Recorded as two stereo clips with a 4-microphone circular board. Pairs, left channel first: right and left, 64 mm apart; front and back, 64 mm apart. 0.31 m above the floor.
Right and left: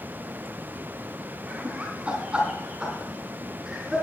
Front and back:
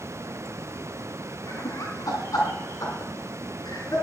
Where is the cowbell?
No cowbell in this recording.